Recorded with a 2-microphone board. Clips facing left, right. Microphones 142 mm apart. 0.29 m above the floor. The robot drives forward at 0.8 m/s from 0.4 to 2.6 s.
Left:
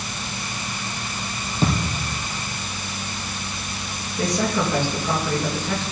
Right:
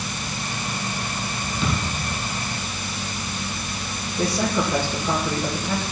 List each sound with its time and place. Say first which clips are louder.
1.6 s a thud: left 4 dB; 35° left (ahead or behind), 4 m
4.2 s a man speaking: even; 10° right (ahead or behind), 5 m